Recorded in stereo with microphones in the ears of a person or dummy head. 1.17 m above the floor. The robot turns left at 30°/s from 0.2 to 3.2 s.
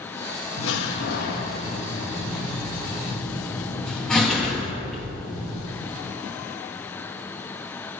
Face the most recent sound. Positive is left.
turn(degrees=0)  # may be behind; listen again after turning